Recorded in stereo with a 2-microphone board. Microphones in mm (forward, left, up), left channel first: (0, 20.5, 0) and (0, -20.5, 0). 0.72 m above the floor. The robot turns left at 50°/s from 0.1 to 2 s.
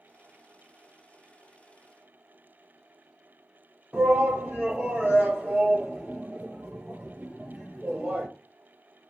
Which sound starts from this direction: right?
A shout, at 3.9 s.